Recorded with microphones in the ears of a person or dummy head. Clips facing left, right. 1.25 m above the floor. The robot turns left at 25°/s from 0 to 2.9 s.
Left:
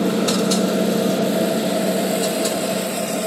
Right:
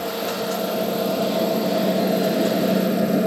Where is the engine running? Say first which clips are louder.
Left 7 dB; 50° left; by 3.3 s 25° right.